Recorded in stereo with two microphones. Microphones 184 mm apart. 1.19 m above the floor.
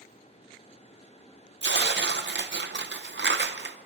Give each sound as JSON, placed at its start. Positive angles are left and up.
{"t": 1.6, "sound": "tearing paper", "side_deg": -75, "distance_m": 0.7}